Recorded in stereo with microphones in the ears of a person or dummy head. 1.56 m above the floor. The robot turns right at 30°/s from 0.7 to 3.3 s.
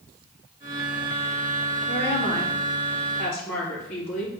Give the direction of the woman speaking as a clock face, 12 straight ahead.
10 o'clock.